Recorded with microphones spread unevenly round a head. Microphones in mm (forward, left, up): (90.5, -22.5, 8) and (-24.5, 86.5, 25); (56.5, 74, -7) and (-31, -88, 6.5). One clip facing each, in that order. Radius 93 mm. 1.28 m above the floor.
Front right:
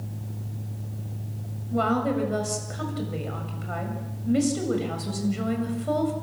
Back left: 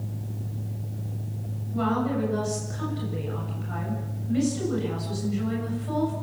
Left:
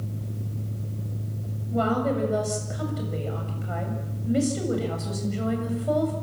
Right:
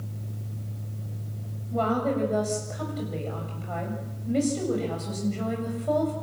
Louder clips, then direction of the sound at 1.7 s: Front right 2 dB, left 1 dB; 20° right.